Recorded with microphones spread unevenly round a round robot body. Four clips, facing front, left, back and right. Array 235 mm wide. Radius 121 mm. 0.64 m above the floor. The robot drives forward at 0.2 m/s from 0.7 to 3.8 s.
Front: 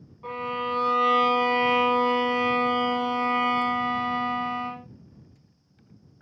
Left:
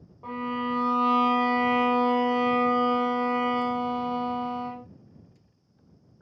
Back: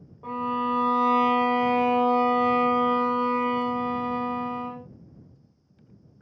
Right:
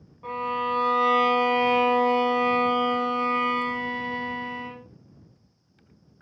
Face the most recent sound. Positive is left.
turn(degrees=170)